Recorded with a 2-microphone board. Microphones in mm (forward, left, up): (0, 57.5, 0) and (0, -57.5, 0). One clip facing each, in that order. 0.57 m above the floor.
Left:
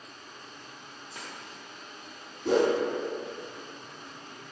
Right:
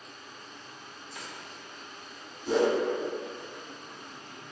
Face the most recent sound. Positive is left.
turn(degrees=60)  # may be behind; listen again after turning